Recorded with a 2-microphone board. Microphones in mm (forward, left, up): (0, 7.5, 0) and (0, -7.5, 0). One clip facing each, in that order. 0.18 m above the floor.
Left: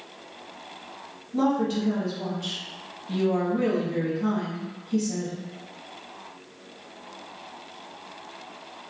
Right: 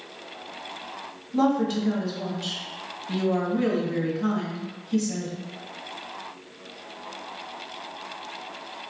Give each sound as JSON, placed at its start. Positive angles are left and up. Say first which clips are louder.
{"t": 1.3, "sound": "a woman speaking", "louder": "right 1 dB", "side_deg": -20, "distance_m": 1.1}